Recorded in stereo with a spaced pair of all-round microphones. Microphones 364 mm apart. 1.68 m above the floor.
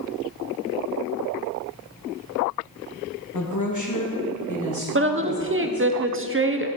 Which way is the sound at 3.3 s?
50° left (ahead or behind).